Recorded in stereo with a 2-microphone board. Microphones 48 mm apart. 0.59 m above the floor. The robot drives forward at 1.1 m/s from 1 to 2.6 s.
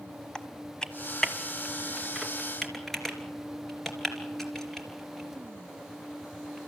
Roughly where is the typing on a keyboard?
Centre.